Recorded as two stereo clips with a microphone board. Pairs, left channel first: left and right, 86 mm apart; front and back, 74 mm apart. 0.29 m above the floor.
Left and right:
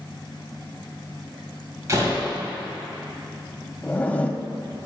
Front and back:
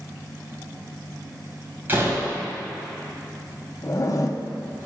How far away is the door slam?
About 1.5 m.